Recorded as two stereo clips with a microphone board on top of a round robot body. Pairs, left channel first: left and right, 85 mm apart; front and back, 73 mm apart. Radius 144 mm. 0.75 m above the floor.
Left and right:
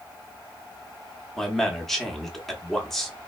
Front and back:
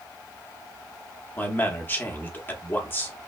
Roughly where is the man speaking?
Ahead.